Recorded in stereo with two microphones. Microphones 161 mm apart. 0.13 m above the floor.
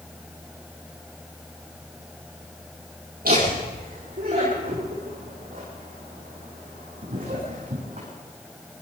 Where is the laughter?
60° right (ahead or behind), 4 m; by 8.1 s 55° right (ahead or behind), 7 m.